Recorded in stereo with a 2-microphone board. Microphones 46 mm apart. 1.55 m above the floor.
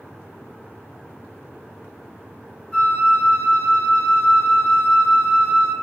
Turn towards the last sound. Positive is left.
turn(degrees=25)  # may be behind; listen again after turning